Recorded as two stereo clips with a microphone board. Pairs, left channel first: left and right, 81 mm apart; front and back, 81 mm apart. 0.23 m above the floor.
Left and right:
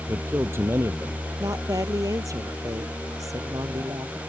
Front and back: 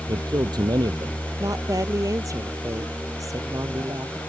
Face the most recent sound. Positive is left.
turn(degrees=-135)